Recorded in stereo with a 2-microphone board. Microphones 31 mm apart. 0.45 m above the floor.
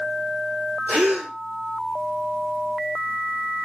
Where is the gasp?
75° right (ahead or behind), 3.5 m.